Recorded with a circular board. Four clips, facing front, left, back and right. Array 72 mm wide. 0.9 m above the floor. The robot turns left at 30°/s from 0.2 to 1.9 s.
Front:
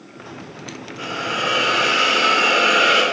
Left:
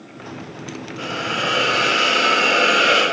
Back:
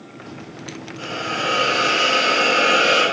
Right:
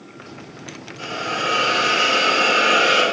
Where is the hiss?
70° left, 1.2 m; by 3.0 s 40° left, 1.2 m.